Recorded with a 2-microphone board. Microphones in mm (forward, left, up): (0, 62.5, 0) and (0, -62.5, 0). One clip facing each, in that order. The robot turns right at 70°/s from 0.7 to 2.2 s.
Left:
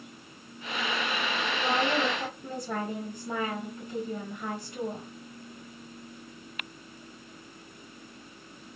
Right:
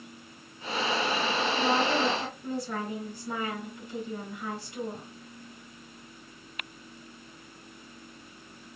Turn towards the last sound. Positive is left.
turn(degrees=70)